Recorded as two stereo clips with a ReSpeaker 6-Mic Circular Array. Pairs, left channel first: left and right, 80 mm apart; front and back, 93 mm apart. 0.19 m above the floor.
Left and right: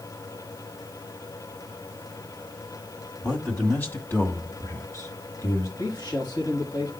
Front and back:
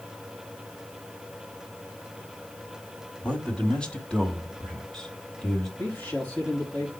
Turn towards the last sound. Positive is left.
turn(degrees=65)